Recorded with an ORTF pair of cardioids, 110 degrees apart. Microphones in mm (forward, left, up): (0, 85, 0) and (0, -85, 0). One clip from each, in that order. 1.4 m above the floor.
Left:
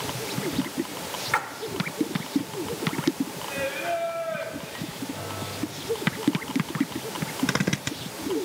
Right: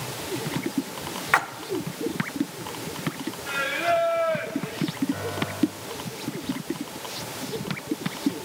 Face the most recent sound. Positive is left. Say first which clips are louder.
# right 4 dB
turn(degrees=-60)